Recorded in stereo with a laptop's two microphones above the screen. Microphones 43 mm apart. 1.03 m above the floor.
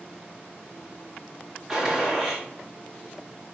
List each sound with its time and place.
1.7 s a gunshot: 5° right (ahead or behind), 1.9 m